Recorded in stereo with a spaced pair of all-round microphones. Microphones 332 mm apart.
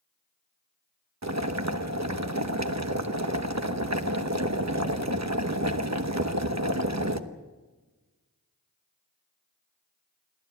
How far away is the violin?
I don't hear a violin.